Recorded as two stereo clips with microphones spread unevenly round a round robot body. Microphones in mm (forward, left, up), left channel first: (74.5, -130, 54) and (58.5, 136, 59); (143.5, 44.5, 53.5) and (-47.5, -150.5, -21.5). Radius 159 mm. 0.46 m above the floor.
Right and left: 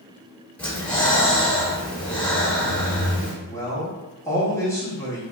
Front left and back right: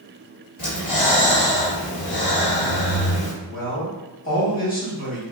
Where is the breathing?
Straight ahead, 1.6 m.